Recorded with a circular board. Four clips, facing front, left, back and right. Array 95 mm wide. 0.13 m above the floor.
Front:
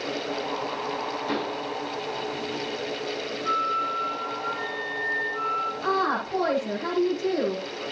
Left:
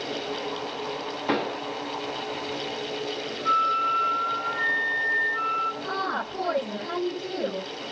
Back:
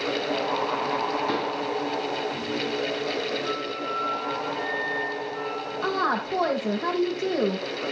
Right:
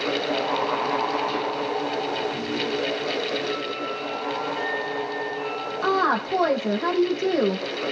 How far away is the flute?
About 2.5 m.